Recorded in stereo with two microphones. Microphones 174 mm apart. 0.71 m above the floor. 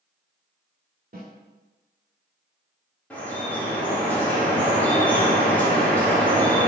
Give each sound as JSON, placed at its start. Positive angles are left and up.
{"t": 1.1, "sound": "a snare drum", "side_deg": -60, "distance_m": 1.3}
{"t": 3.1, "sound": "dripping", "side_deg": 10, "distance_m": 1.1}